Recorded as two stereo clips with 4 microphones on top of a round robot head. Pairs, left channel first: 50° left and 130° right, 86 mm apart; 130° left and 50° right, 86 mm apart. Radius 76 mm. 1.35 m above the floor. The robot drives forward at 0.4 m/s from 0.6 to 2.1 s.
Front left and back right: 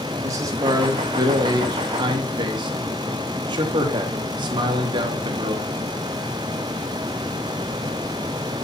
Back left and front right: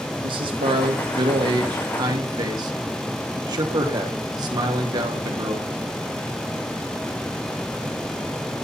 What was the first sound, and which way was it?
A man speaking, 75° right.